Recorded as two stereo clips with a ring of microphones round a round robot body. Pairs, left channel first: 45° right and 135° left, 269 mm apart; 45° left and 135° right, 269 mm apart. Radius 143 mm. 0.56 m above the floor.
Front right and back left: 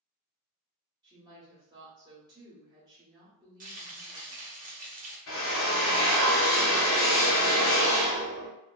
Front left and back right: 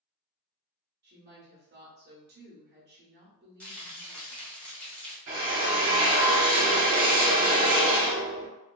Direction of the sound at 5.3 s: 80° right.